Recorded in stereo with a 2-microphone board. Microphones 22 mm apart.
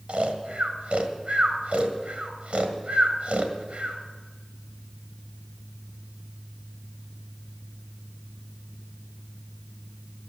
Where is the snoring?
70° right (ahead or behind), 1.7 m.